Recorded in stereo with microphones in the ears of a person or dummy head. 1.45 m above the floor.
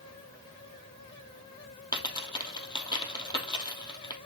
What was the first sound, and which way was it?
A dropped coin, 25° left (ahead or behind).